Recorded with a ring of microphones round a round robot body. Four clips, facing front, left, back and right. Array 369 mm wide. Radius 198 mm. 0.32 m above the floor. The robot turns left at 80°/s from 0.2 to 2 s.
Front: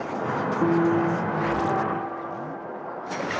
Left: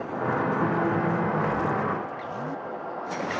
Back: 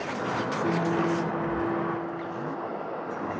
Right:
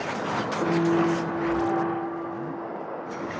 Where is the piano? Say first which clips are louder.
Right 2 dB, front 6 dB; 10° right, 1.8 m; by 3.3 s 120° right, 1.8 m.